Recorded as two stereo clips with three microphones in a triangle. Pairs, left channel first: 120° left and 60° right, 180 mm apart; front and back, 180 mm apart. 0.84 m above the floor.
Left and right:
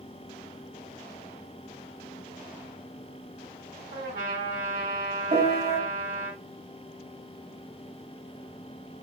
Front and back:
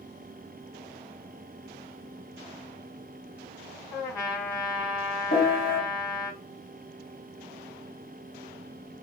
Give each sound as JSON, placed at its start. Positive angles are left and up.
{"t": 3.9, "sound": "a trumpet", "azimuth_deg": -70, "distance_m": 1.5}
{"t": 5.3, "sound": "a piano", "azimuth_deg": -20, "distance_m": 1.7}